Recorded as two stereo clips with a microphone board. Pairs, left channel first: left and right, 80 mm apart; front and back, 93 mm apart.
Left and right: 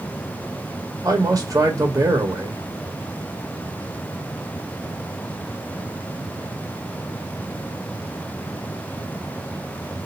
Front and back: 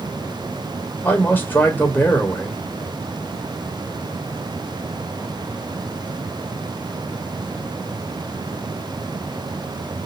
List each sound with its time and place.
1.0 s a man speaking: 65° right, 1.4 m